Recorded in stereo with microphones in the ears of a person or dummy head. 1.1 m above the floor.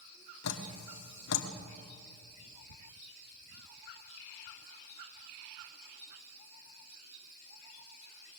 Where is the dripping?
75° left (ahead or behind), 1.7 m.